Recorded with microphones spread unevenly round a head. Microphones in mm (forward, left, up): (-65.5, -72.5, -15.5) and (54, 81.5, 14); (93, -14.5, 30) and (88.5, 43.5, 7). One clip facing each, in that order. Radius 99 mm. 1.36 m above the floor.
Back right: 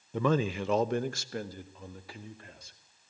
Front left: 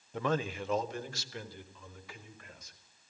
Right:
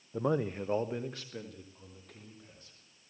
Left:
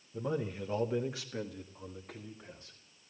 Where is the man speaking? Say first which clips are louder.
Back right 5 dB, right 4 dB; 130° right, 0.7 m; by 2.8 s 170° left, 3 m.